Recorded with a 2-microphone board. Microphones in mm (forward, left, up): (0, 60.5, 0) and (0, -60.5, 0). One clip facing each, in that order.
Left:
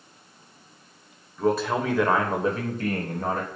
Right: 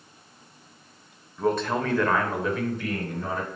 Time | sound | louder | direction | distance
1.4 | a man speaking | left 1 dB | centre (ahead or behind) | 1.6 m